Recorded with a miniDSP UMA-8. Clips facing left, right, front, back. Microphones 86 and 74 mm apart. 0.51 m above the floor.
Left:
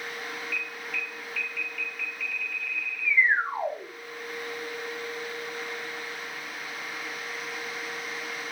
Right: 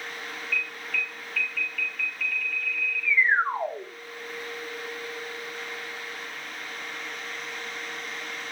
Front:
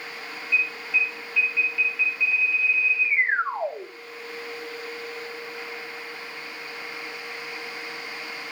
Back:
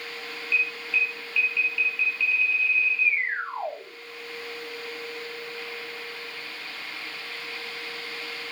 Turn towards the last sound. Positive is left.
turn(degrees=-50)